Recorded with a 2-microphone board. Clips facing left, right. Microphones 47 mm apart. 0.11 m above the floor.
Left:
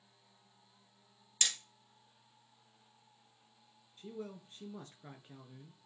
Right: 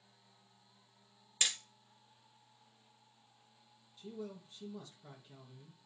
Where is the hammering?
10° right (ahead or behind), 1.3 m.